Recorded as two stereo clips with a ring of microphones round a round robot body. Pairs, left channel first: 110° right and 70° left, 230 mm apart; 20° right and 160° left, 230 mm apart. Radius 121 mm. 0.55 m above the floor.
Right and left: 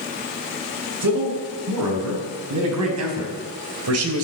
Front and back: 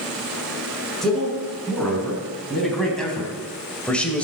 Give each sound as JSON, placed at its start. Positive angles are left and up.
{"t": 1.0, "sound": "a man speaking", "azimuth_deg": 65, "distance_m": 7.0}